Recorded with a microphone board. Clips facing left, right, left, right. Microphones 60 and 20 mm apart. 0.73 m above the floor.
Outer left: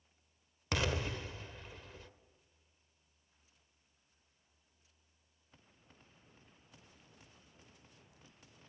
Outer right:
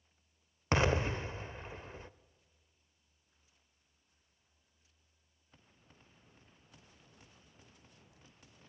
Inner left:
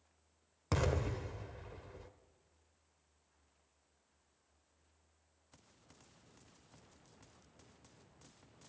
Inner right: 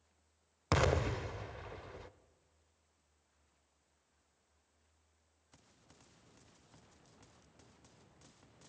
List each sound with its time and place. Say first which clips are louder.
0.7 s an explosion: outer right 6 dB, inner right 4 dB; 30° right (ahead or behind), 0.5 m